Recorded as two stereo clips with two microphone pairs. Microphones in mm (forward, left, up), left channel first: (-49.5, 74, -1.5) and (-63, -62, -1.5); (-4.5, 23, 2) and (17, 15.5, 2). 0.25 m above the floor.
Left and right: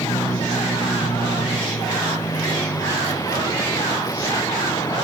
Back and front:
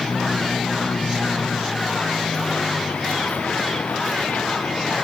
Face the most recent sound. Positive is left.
turn(degrees=150)